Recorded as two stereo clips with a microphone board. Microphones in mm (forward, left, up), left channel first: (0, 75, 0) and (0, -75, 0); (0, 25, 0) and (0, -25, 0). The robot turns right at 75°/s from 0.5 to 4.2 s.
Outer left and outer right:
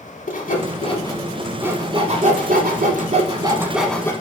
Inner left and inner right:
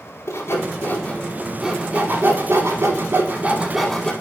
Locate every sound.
0.3 s sawing: 65° left (ahead or behind), 0.8 m; by 4.1 s 20° left (ahead or behind), 0.8 m